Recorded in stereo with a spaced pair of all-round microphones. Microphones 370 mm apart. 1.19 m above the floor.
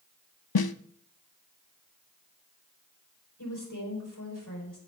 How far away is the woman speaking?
About 5 m.